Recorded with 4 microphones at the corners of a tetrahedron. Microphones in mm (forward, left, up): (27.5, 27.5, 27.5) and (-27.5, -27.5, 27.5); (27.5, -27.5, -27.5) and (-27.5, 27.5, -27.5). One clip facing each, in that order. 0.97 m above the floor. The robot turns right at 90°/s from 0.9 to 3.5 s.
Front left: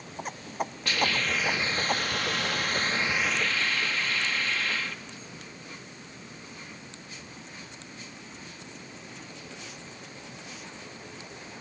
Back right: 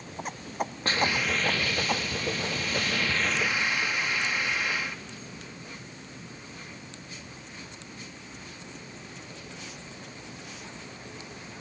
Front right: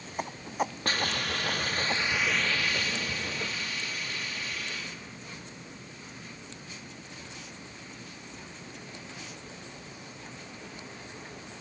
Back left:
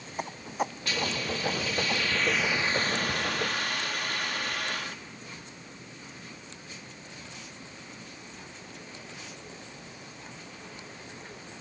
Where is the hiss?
85° right, 2.0 m; by 5.0 s 150° left, 2.0 m.